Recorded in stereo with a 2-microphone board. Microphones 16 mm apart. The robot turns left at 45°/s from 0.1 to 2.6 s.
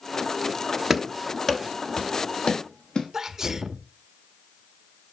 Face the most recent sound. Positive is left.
turn(degrees=-30)  # may be behind; listen again after turning